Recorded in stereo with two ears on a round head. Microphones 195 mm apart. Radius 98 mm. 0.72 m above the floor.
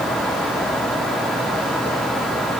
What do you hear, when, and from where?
Only background noise.